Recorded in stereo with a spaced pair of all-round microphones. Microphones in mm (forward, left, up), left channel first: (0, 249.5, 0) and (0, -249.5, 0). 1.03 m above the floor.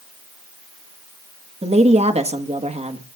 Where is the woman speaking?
15° right (ahead or behind), 1.5 m.